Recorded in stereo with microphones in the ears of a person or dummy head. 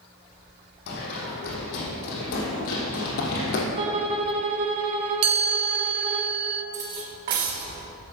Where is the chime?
35° right (ahead or behind), 0.9 m.